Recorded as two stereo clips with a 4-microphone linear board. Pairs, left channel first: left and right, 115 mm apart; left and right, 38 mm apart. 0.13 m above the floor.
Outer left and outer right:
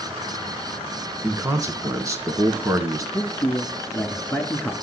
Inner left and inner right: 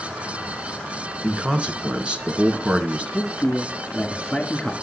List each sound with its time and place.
1.2 s a man speaking: 25° right (ahead or behind), 1.5 m
3.1 s a man speaking: 15° left (ahead or behind), 1.4 m